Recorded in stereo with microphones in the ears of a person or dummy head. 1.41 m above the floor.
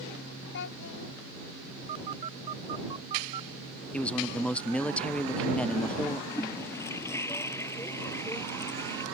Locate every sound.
0.5 s a child speaking: 60° left (ahead or behind)
1.9 s a phone buzzing: 30° right (ahead or behind)
3.9 s a man speaking: 5° left (ahead or behind)
6.3 s a toilet flushing: 15° left (ahead or behind)